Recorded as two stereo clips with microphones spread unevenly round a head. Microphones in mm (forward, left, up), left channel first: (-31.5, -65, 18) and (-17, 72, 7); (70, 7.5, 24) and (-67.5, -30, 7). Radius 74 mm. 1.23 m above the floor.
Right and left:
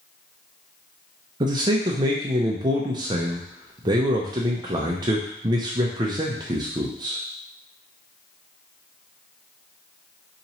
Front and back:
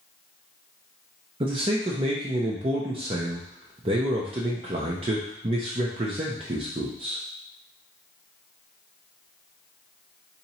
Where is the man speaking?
145° left, 0.5 m.